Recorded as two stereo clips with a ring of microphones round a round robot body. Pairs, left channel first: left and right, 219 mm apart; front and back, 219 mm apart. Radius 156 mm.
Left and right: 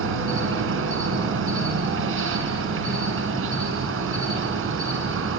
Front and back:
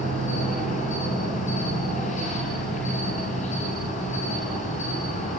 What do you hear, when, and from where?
0.0 s an insect: 70° right, 5 m